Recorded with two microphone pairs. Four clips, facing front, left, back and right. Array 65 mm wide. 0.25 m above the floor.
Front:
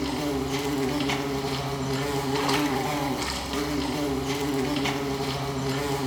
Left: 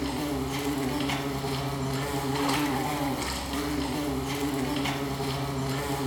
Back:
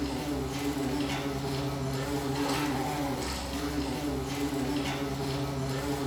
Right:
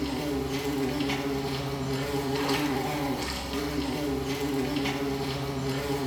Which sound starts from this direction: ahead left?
An insect, at 0.0 s.